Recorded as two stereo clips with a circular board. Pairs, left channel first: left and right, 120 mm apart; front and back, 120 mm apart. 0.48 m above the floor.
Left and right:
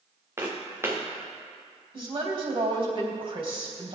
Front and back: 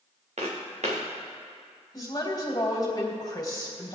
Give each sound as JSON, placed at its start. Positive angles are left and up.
{"t": 0.4, "sound": "footsteps", "azimuth_deg": -160, "distance_m": 3.0}
{"t": 1.9, "sound": "a woman speaking", "azimuth_deg": -55, "distance_m": 3.0}